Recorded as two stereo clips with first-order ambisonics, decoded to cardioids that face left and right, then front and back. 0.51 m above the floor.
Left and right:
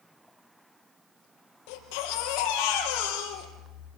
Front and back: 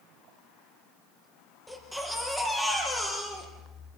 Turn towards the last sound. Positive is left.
turn(degrees=85)